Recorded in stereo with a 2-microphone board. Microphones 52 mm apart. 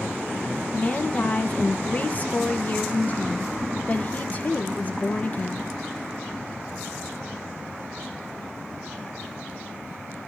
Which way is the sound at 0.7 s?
30° left (ahead or behind).